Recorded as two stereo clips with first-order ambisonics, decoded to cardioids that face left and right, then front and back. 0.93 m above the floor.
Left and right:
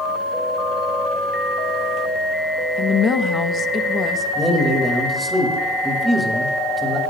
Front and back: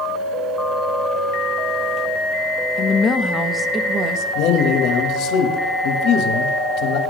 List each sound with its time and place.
2.8 s a woman speaking: 40° left, 0.9 m; by 4.2 s 160° left, 1.0 m
4.3 s a man speaking: 5° right, 1.5 m